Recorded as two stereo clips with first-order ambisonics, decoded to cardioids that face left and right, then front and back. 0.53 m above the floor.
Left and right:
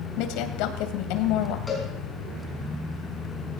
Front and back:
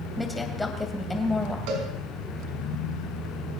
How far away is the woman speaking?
About 2.5 m.